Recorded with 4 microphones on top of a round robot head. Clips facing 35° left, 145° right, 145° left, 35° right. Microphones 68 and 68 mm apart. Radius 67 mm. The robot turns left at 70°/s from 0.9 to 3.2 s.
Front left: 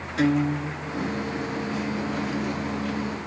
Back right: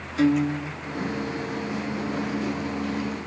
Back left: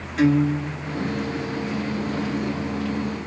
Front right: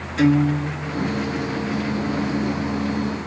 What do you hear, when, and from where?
0.2 s a guitar: 60° left, 1.5 m; by 1.1 s 40° left, 1.5 m